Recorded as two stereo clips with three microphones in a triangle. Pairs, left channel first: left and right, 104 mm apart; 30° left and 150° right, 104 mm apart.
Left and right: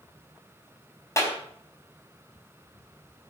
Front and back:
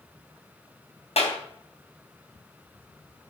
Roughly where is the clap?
Ahead left.